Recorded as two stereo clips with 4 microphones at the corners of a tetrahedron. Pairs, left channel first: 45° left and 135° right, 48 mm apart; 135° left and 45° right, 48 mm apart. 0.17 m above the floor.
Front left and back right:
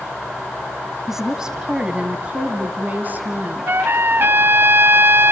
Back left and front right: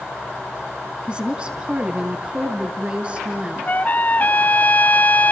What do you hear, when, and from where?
1.1 s a woman speaking: 60° right, 1.6 m; by 3.6 s 100° right, 2.5 m
3.7 s a trumpet: 175° right, 0.6 m